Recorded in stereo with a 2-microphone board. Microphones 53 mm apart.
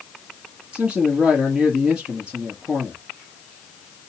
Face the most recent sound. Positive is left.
turn(degrees=-20)  # may be behind; listen again after turning